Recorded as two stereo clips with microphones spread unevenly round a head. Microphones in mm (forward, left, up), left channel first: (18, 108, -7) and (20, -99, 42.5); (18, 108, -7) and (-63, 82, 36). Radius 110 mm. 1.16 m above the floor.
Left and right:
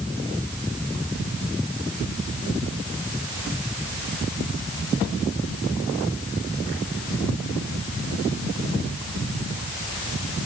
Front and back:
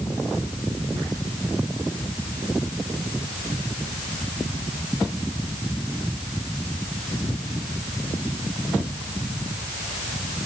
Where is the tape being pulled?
No tape being pulled in this recording.